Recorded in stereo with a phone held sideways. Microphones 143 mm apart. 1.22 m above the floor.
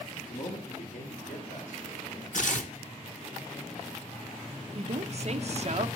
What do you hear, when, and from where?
0.3 s a man speaking: 70° left (ahead or behind), 3.5 m; by 2.2 s 80° left, 6 m
2.3 s tearing paper: 60° left (ahead or behind), 1.1 m
4.8 s a woman speaking: 50° right (ahead or behind), 0.9 m